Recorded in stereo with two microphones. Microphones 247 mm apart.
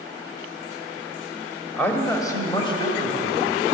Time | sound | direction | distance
1.8 | a man speaking | 5° left (ahead or behind) | 1.6 m